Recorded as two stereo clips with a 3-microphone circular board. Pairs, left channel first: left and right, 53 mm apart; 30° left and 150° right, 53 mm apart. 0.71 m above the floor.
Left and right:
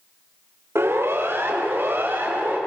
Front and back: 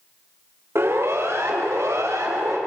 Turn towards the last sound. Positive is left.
turn(degrees=-135)